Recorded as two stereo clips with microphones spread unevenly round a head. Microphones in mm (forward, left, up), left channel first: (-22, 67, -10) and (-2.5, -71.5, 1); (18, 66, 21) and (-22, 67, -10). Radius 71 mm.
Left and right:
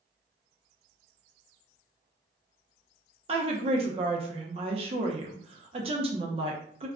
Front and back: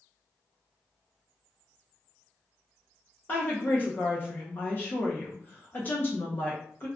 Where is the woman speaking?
35° right, 0.7 m.